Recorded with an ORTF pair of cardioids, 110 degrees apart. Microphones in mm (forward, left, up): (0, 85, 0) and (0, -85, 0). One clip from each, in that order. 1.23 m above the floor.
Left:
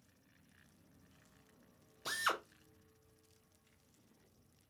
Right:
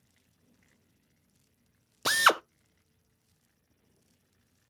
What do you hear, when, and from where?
2.0 s a drill: 65° right, 0.6 m